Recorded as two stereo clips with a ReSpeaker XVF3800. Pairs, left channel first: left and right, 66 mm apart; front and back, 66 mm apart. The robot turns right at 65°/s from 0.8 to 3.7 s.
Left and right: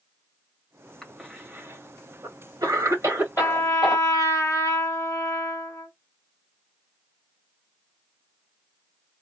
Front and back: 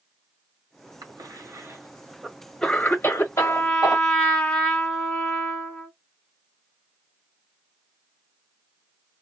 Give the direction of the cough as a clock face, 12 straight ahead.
6 o'clock.